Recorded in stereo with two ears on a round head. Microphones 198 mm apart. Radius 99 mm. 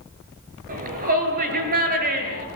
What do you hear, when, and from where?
0.7 s a shout: 40° right (ahead or behind), 8 m